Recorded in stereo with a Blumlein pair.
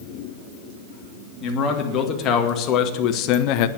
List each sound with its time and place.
1.4 s a man speaking: 30° left, 3 m; by 3.7 s 45° left, 0.9 m